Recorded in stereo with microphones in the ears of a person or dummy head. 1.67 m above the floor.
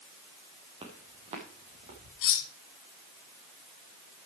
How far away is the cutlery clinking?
About 1.9 m.